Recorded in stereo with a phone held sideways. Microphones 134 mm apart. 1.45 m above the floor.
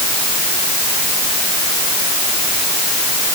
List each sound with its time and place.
Only background noise.